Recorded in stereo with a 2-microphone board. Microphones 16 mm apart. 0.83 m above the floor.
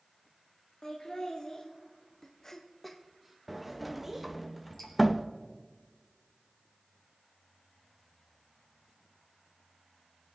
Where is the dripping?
30° left (ahead or behind), 5 m.